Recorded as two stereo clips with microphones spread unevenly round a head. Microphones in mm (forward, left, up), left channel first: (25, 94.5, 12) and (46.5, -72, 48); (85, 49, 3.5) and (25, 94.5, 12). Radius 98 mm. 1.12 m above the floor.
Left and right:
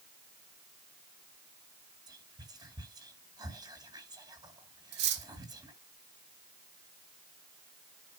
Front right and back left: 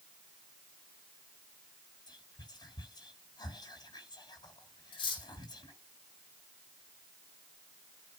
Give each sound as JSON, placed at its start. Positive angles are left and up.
{"t": 2.1, "sound": "whispering", "azimuth_deg": -15, "distance_m": 2.0}
{"t": 4.9, "sound": "cutlery clinking", "azimuth_deg": -70, "distance_m": 2.0}